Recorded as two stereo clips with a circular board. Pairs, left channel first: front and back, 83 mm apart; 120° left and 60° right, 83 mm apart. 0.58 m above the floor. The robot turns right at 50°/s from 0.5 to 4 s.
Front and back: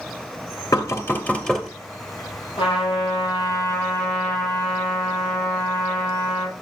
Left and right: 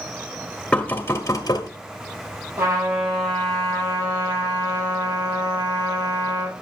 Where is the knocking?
45° left, 1.6 m; by 1.7 s 90° left, 1.6 m.